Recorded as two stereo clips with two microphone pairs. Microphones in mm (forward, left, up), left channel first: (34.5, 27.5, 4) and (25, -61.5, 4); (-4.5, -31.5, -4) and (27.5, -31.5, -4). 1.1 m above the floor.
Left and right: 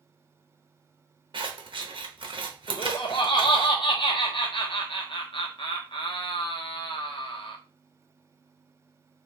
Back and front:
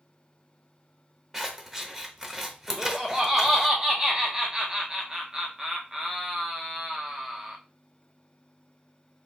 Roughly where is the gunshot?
No gunshot in this recording.